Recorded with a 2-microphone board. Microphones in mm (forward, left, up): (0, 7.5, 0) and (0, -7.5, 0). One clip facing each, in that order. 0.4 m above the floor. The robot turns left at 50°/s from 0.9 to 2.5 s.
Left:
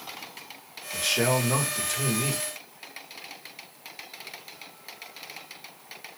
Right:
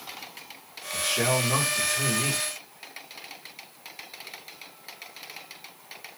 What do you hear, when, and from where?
0.9 s a man speaking: 65° left, 1.1 m; by 2.4 s 10° right, 1.1 m